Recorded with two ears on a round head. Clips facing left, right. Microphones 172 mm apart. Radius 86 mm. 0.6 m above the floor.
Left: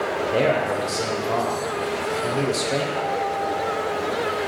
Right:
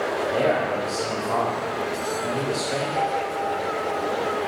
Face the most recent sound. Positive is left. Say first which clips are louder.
# left 1 dB
turn(degrees=-25)  # may be behind; listen again after turning